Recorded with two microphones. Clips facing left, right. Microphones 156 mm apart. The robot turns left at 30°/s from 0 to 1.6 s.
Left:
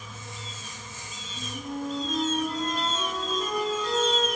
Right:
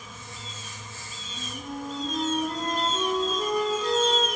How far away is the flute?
About 2.5 m.